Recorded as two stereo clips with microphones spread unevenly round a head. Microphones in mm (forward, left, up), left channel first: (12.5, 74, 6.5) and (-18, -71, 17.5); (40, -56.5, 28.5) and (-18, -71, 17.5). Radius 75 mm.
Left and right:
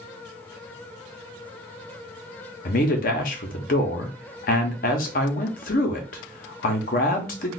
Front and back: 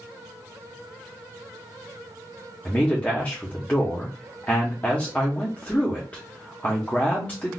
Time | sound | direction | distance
2.6 | a man speaking | 75° left | 0.7 m